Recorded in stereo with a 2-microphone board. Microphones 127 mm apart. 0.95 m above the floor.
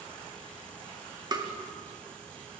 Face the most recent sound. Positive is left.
turn(degrees=-35)  # may be behind; listen again after turning